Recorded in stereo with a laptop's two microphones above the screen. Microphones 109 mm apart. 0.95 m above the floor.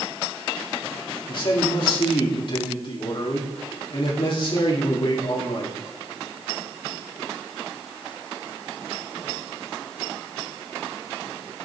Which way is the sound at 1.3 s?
50° left (ahead or behind).